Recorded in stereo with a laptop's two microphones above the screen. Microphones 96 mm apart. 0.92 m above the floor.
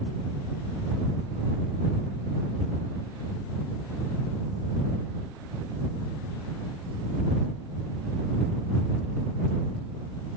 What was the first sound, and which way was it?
Only background noise.